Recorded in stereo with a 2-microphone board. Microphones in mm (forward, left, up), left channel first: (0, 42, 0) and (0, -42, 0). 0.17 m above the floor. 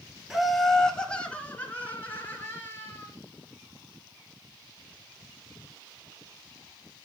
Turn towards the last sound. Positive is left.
turn(degrees=25)  # may be behind; listen again after turning